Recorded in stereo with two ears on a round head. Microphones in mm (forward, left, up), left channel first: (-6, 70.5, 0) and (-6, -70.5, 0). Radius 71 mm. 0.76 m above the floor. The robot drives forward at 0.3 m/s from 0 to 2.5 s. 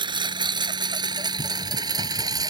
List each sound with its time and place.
0.0 s a lawn mower: 30° right (ahead or behind); by 2.5 s 25° right (ahead or behind)